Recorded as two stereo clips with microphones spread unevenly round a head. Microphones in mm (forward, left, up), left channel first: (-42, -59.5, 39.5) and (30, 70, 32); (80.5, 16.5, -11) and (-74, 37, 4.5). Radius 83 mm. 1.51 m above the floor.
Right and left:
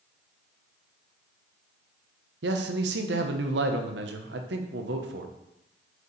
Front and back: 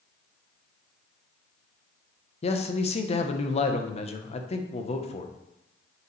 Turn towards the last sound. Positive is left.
turn(degrees=45)